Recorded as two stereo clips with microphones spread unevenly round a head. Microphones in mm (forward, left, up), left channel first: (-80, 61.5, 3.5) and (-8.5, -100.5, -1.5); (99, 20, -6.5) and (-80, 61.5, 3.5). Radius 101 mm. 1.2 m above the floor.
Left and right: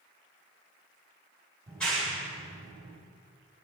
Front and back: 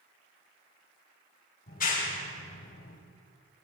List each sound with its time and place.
1.7 s a clap: 30° left, 4 m